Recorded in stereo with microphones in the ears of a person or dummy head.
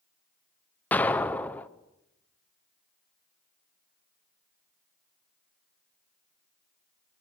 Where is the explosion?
10° left (ahead or behind), 0.9 m.